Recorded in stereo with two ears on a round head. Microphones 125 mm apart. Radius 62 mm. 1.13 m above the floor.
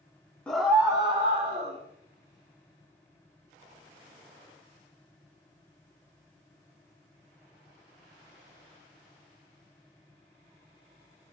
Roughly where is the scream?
Centre.